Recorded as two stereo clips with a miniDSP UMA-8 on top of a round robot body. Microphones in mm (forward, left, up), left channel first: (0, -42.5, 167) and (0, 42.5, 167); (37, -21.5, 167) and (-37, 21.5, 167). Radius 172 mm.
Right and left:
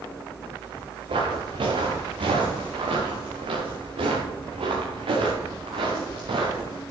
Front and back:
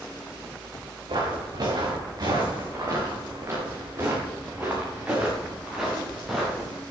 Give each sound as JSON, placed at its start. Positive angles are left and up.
{"t": 1.1, "sound": "footsteps", "azimuth_deg": 110, "distance_m": 4.0}